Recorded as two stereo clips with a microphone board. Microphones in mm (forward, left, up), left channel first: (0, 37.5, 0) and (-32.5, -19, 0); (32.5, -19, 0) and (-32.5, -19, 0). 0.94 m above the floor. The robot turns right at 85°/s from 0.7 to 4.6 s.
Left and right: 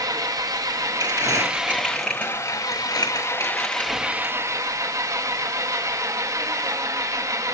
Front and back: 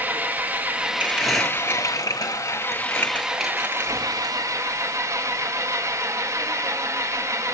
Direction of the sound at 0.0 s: 120° right.